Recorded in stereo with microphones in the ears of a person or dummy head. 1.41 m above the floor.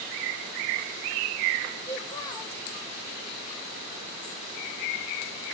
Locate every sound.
1.9 s a child speaking: 20° left (ahead or behind), 0.8 m